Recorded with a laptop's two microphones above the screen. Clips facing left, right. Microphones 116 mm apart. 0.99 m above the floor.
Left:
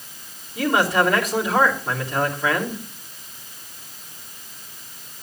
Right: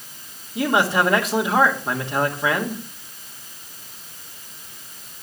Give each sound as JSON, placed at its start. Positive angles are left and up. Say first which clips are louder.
{"t": 0.6, "sound": "a man speaking", "louder": "even", "side_deg": -25, "distance_m": 2.0}